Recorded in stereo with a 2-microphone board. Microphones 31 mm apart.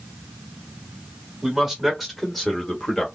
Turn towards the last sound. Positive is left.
turn(degrees=20)  # may be behind; listen again after turning